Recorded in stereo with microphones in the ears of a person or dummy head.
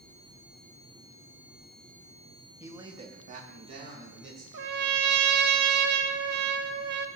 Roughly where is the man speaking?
Centre.